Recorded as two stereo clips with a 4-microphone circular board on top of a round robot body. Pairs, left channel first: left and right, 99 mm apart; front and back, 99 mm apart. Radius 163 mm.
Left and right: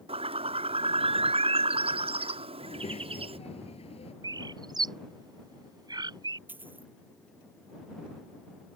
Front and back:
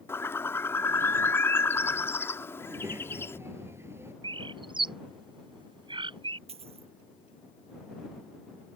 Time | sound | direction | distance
0.1 | a bird | 70° right | ?
2.6 | a child speaking | 110° left | ?
4.2 | a bird | 140° right | ?
6.5 | a dropped coin | 165° right | ?